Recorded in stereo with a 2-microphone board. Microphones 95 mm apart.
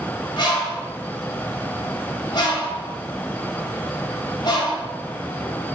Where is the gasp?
No gasp in this recording.